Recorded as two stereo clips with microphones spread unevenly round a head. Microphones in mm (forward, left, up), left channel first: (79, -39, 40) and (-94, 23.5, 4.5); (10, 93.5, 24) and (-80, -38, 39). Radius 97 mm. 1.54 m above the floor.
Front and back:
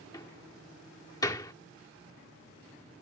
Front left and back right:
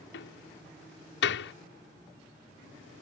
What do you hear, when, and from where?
0.1 s a door slam: 50° left